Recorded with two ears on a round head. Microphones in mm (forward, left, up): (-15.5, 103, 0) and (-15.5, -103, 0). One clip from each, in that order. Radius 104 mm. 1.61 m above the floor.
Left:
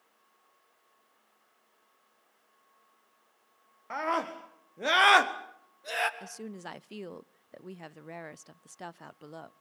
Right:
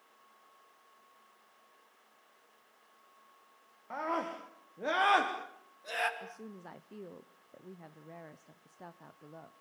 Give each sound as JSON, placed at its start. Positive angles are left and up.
{"t": 3.9, "sound": "a scream", "side_deg": 55, "distance_m": 1.8}
{"t": 6.2, "sound": "a woman speaking", "side_deg": 85, "distance_m": 0.5}